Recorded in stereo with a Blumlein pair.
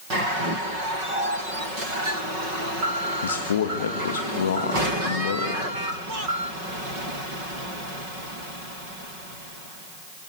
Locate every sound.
3.2 s a man speaking: 65° left, 1.9 m